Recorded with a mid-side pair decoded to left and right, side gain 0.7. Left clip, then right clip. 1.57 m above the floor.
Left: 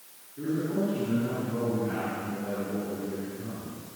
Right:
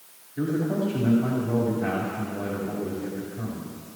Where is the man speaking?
60° right, 5 m.